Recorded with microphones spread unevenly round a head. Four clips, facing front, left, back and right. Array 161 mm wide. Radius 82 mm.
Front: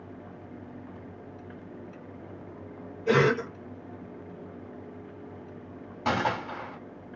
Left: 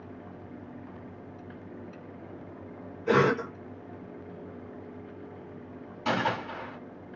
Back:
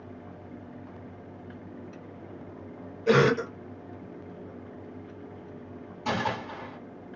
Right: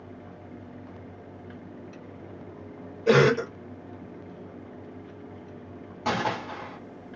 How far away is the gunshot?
About 1.5 m.